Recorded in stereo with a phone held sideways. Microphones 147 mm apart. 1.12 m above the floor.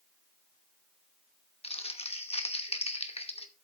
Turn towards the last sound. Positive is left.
turn(degrees=45)  # may be behind; listen again after turning